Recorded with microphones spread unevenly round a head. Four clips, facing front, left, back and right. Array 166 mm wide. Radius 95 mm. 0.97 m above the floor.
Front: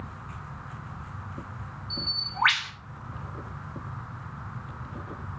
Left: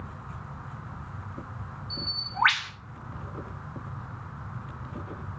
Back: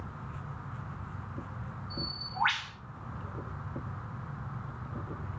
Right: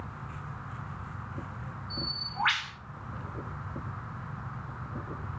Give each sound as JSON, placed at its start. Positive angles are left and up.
{"t": 1.9, "sound": "a bird", "azimuth_deg": 35, "distance_m": 4.0}